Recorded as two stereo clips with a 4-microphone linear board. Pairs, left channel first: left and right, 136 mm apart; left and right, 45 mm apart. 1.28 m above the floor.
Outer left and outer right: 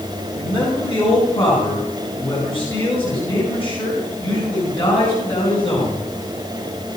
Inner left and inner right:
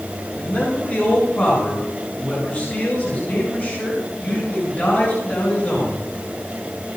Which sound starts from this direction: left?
A man speaking, at 0.4 s.